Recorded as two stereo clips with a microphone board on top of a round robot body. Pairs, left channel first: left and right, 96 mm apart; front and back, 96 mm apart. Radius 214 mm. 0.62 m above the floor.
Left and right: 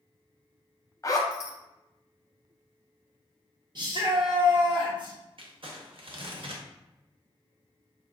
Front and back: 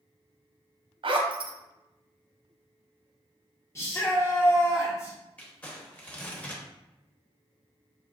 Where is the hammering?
No hammering in this recording.